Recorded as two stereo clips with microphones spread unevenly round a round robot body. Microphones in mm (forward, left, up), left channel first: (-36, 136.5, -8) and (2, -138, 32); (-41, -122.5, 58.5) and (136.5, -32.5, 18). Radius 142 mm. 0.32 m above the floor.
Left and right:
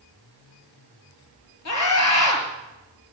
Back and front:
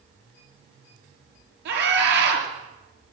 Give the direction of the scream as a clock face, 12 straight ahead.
10 o'clock.